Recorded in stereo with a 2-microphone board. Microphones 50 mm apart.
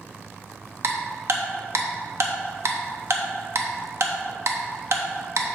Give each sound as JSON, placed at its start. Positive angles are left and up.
{"t": 0.8, "sound": "ticking", "side_deg": -65, "distance_m": 0.8}